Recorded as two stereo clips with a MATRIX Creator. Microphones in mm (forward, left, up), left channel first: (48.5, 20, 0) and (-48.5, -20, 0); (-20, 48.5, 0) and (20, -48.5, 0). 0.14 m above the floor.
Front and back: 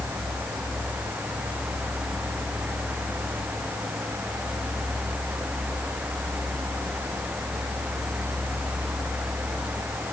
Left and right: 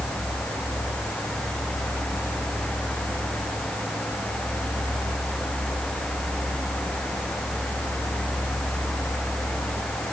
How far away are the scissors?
No scissors in this recording.